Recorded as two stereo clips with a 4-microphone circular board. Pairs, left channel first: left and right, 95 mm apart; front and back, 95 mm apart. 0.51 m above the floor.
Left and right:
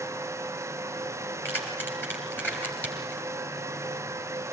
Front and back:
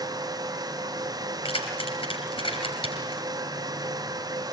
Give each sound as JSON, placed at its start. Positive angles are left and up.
{"t": 1.4, "sound": "keys jangling", "azimuth_deg": 20, "distance_m": 6.0}